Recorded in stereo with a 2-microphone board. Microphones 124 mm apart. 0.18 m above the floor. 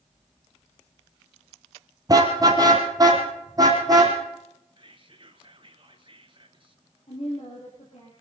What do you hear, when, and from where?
2.1 s a car horn: 30° right (ahead or behind), 3 m
4.8 s whispering: 45° right (ahead or behind), 2.5 m
7.1 s a woman speaking: 60° left (ahead or behind), 4.5 m